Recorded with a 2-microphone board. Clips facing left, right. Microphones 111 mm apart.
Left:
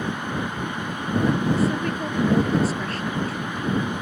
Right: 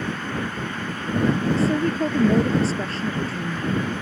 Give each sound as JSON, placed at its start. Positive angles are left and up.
{"t": 1.6, "sound": "a woman speaking", "side_deg": -30}